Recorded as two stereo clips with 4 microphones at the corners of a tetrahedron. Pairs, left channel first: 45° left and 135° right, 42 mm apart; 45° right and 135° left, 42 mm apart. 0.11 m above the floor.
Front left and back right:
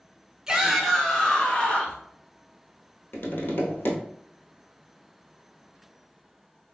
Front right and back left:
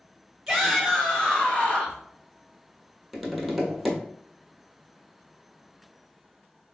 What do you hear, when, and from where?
0.5 s a shout: 160° right, 1.1 m; by 2.0 s straight ahead, 1.6 m
3.1 s tapping: 50° left, 1.2 m